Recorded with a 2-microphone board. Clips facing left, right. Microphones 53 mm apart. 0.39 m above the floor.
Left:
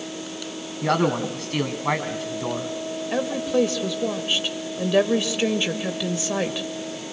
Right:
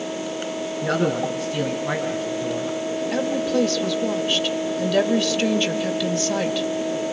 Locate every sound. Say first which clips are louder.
0.8 s a man speaking: left 1 dB; 65° left (ahead or behind), 3 m
3.1 s a woman speaking: even; 15° left (ahead or behind), 1.8 m